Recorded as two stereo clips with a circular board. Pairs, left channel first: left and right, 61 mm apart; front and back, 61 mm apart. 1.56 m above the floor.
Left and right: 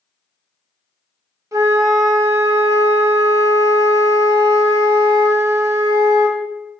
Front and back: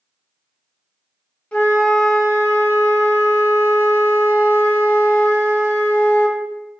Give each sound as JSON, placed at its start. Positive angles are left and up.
{"t": 1.5, "sound": "a flute", "azimuth_deg": -70, "distance_m": 0.6}